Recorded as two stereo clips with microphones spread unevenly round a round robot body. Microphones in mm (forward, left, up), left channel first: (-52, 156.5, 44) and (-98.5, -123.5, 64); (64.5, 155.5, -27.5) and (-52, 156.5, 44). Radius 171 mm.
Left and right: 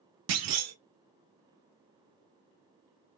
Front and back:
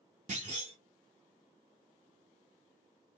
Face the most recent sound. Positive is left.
turn(degrees=-135)